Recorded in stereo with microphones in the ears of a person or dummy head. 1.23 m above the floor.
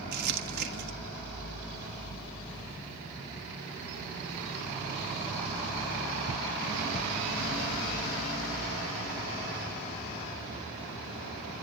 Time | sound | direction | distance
0.1 | crumpling | 50° right (ahead or behind) | 1.7 m